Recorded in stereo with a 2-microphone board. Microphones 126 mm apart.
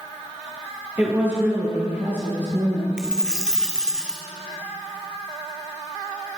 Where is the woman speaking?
15° right (ahead or behind), 2.5 m.